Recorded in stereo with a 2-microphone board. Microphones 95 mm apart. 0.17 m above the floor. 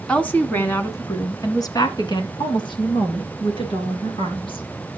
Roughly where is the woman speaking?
Centre.